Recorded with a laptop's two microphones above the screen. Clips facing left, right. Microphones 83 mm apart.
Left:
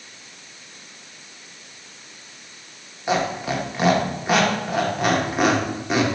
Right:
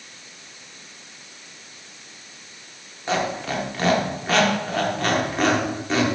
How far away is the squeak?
About 0.6 m.